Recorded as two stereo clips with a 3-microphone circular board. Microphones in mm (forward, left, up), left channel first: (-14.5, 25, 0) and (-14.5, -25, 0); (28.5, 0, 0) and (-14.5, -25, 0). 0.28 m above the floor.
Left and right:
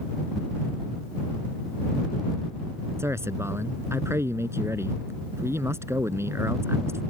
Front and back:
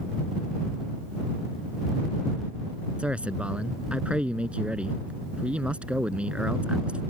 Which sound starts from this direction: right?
A man speaking, at 3.0 s.